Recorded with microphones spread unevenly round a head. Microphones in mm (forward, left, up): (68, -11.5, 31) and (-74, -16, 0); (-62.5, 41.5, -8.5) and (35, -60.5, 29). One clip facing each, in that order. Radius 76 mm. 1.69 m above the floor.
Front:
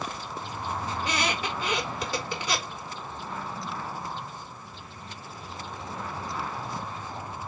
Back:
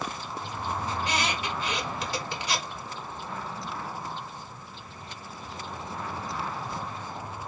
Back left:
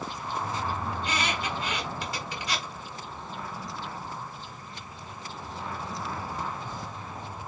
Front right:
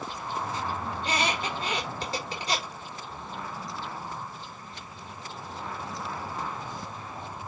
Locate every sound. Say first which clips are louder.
0.9 s a squeak: front 2 dB, front right 2 dB; 15° left, 4.5 m